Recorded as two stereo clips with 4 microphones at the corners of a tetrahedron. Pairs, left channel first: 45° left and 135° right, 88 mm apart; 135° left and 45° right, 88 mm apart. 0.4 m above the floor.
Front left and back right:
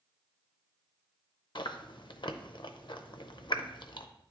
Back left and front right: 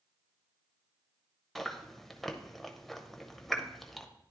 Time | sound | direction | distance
1.6 | chewing | 50° left | 0.5 m